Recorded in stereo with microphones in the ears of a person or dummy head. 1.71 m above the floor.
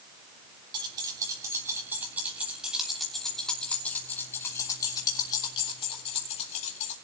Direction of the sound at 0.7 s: 20° right (ahead or behind).